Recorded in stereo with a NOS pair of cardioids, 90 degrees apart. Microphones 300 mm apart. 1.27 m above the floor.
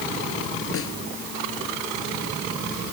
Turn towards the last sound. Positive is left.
turn(degrees=45)